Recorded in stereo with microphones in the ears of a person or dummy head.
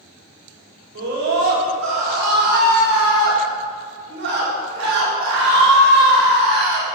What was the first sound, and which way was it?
A scream, 75° right (ahead or behind).